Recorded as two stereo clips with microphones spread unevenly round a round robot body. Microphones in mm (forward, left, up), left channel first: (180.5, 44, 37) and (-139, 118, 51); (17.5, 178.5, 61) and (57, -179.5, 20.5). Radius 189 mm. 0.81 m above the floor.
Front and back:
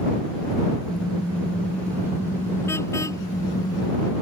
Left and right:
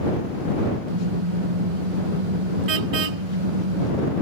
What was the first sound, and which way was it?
A car horn, 100° right.